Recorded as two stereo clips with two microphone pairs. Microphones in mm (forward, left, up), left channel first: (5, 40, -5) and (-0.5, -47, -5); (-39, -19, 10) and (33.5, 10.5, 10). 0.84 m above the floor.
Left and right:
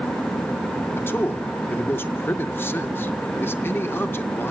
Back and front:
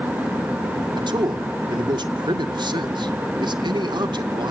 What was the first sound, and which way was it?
A man speaking, 25° left.